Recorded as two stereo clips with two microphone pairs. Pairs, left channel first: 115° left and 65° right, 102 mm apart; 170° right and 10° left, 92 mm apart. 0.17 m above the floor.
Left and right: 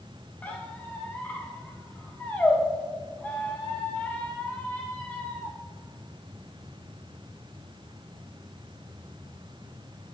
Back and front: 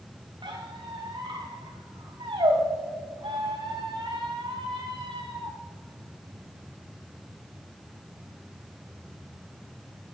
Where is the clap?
No clap in this recording.